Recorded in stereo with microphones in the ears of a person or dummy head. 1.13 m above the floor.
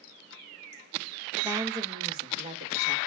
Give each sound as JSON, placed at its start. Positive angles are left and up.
{"t": 1.4, "sound": "a woman speaking", "side_deg": -15, "distance_m": 1.0}